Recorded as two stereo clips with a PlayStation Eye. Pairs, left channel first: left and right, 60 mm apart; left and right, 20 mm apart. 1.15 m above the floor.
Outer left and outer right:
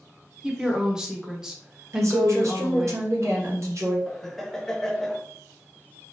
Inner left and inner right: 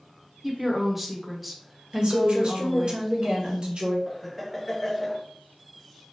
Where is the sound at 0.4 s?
10° right (ahead or behind), 0.8 m.